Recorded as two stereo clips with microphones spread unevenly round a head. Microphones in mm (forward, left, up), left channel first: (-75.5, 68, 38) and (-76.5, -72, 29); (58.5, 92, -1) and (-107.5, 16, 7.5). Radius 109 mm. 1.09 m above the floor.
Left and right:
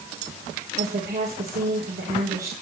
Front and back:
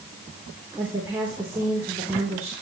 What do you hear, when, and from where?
0.8 s a woman speaking: 75° right, 4.5 m